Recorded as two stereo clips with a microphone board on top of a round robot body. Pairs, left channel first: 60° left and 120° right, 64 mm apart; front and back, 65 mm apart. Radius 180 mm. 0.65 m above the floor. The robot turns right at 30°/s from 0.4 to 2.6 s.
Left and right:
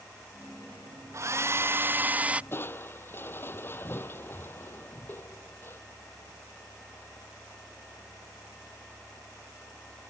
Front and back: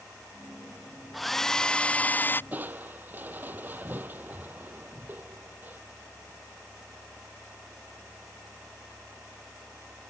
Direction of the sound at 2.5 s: 115° left.